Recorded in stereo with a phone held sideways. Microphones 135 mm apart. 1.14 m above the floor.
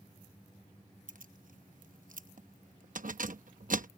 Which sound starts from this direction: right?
Keys jangling, at 1.1 s.